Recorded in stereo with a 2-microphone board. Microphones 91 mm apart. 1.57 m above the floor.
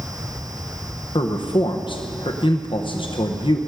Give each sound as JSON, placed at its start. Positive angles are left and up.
{"t": 1.1, "sound": "a man speaking", "side_deg": 60, "distance_m": 0.9}